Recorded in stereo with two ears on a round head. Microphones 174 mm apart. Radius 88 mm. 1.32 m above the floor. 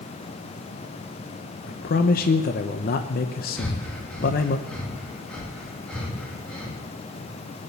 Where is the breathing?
5° left (ahead or behind), 2.5 m.